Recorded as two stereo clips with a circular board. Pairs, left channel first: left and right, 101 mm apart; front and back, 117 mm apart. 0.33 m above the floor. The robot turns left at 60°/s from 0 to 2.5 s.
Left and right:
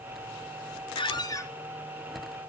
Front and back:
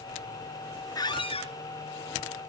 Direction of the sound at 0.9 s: 60° left.